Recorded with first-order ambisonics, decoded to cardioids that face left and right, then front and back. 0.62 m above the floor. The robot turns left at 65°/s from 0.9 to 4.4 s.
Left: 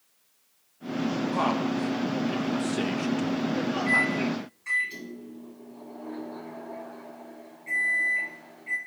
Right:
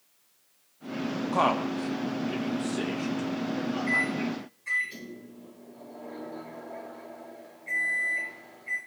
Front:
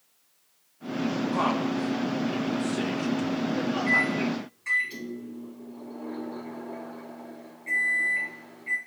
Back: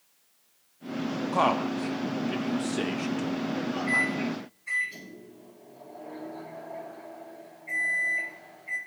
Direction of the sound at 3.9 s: 60° left.